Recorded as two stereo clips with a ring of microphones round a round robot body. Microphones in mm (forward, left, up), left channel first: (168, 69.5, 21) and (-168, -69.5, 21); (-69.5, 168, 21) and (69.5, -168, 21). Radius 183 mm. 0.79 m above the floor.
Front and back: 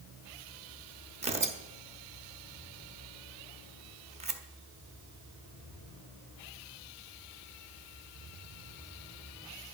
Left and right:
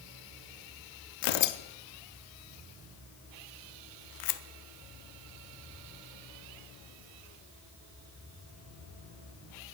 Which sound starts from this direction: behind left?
Tearing paper, at 1.2 s.